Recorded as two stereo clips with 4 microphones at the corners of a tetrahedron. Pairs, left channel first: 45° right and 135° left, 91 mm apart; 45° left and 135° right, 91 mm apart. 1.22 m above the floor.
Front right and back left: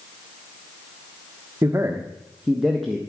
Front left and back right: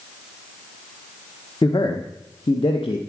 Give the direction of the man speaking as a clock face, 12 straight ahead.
9 o'clock.